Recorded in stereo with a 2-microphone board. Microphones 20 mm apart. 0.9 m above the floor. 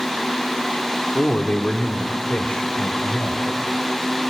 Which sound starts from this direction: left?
A man speaking, at 1.1 s.